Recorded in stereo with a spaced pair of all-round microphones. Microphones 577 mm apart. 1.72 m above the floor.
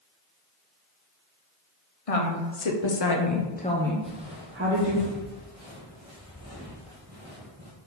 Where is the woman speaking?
70° left (ahead or behind), 1.1 m; by 5.0 s 30° right (ahead or behind), 1.3 m.